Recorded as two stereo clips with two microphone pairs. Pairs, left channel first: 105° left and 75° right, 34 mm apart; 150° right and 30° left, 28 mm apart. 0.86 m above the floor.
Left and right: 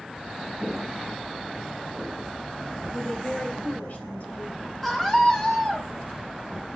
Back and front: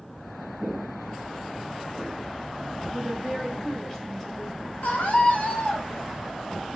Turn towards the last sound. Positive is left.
turn(degrees=-170)